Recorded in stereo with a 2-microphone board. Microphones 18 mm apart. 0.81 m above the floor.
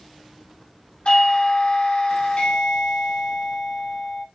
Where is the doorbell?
65° left (ahead or behind), 2.5 m.